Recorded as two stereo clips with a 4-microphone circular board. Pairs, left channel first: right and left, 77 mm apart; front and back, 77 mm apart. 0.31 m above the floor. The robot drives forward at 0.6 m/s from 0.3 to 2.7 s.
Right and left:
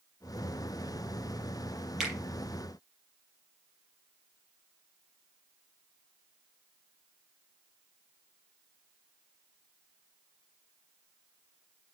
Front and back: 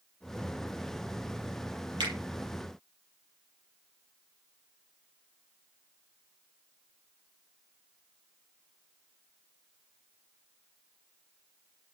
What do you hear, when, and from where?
2.0 s a finger snap: 175° left, 6 m